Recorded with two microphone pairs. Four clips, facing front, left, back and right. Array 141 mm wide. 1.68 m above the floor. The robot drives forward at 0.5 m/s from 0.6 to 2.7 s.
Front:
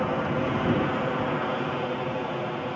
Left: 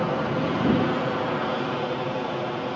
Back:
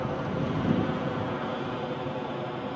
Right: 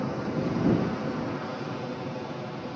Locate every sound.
0.0 s an aircraft: 65° left; by 2.8 s 75° left